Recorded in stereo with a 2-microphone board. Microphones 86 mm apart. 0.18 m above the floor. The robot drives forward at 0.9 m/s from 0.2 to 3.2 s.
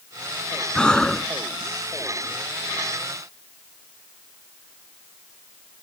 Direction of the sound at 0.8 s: 10° left (ahead or behind).